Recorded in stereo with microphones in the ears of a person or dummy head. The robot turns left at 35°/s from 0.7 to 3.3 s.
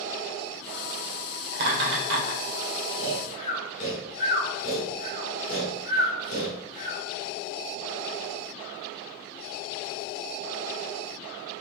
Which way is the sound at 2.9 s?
60° left (ahead or behind).